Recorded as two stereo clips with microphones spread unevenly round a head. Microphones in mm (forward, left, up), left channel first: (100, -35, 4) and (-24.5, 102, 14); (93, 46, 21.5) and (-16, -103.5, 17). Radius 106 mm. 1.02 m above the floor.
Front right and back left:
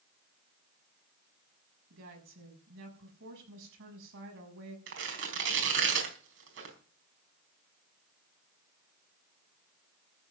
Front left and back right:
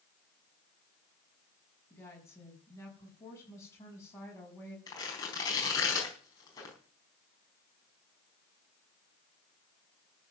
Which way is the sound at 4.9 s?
125° left.